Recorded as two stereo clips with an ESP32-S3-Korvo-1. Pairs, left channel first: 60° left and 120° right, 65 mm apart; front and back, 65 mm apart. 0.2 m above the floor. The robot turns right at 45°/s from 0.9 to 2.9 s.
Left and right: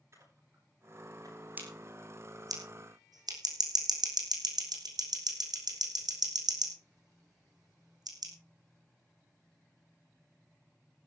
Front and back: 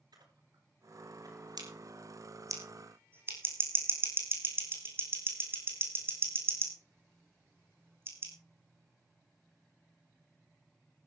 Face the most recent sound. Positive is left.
turn(degrees=-125)